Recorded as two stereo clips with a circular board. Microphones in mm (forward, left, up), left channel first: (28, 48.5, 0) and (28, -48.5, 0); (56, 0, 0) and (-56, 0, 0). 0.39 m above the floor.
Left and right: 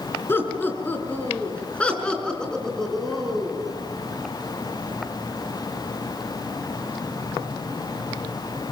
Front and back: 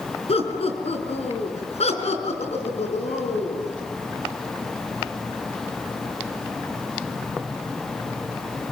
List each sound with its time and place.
0.3 s laughter: 25° left, 5 m; by 3.7 s 5° right, 4.5 m